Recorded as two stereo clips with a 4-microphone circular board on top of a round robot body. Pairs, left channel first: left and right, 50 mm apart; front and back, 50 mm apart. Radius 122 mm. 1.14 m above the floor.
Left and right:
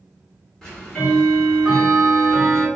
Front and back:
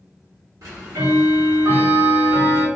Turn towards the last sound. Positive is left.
turn(degrees=170)